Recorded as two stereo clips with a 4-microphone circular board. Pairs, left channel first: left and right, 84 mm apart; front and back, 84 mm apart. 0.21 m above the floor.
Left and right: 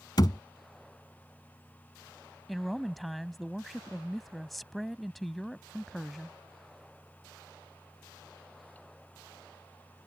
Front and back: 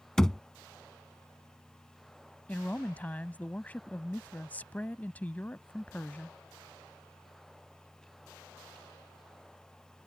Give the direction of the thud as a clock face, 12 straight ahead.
9 o'clock.